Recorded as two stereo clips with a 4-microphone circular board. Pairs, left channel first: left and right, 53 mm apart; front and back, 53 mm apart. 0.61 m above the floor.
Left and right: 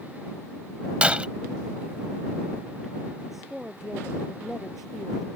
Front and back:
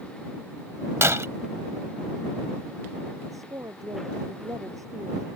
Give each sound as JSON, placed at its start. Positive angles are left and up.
{"t": 1.0, "sound": "breaking glass", "azimuth_deg": -155}
{"t": 3.3, "sound": "a woman speaking", "azimuth_deg": -175}